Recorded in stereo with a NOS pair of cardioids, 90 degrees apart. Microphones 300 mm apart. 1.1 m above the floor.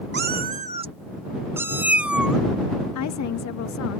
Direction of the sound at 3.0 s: 65° left.